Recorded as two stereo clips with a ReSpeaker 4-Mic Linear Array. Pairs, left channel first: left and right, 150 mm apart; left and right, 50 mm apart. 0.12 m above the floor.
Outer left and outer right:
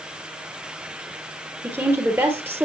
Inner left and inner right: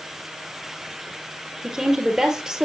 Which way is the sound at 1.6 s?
15° right (ahead or behind).